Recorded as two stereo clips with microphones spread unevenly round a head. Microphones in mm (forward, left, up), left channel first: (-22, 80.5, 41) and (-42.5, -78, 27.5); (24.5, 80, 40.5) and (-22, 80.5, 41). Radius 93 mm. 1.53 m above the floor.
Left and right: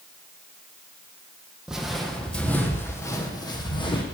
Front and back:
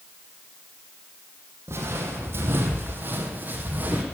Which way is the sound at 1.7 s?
175° left.